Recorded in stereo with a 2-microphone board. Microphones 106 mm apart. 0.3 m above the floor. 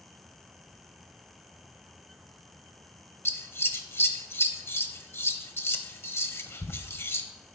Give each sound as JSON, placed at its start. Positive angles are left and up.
{"t": 3.2, "sound": "scissors", "side_deg": 25, "distance_m": 0.8}